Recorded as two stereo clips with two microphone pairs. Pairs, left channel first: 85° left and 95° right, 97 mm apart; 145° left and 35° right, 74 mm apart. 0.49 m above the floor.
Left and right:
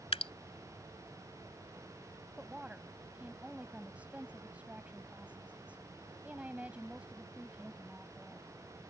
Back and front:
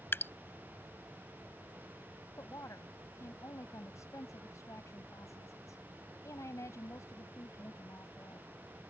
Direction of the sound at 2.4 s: 170° right.